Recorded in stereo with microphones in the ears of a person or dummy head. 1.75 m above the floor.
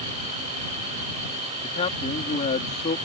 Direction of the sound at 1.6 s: 30° left (ahead or behind).